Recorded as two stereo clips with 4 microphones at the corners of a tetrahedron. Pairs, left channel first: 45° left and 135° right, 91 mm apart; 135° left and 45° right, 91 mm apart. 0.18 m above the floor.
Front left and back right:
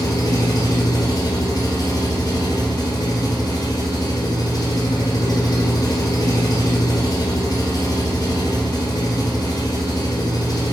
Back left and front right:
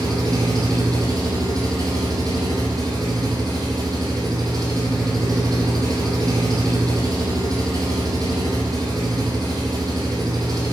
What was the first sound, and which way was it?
An engine running, straight ahead.